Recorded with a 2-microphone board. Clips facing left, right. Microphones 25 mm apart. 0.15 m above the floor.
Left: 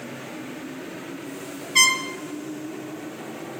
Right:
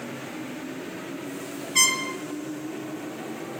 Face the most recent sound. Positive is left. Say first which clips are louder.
# left 4 dB
turn(degrees=25)  # may be behind; listen again after turning